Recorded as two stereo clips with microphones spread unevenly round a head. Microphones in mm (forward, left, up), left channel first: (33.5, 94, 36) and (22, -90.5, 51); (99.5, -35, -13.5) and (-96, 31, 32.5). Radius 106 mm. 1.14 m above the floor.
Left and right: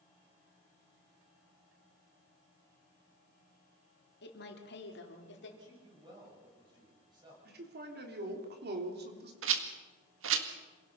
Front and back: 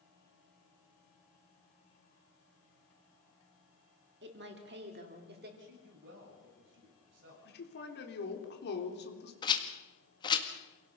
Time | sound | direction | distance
4.2 | a woman speaking | 120° left | 3 m
5.6 | a man speaking | 160° right | 8.5 m
7.5 | a man speaking | 60° right | 3 m
9.4 | a rattle | 85° right | 1.9 m